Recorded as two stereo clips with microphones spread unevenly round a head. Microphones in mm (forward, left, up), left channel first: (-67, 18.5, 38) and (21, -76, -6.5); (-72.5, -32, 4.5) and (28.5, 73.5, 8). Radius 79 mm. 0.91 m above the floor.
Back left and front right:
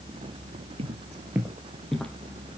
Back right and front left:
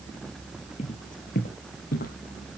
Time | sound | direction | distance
0.8 | footsteps | 100° right | 1.2 m